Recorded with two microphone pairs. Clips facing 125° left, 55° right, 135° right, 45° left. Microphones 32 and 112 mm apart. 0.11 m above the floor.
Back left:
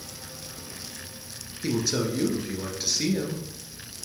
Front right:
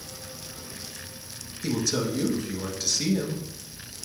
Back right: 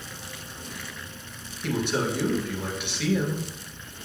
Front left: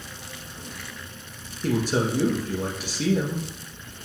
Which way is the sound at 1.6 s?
55° left.